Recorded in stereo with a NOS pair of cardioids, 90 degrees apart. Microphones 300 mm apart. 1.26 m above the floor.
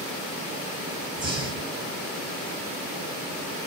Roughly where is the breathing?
Ahead.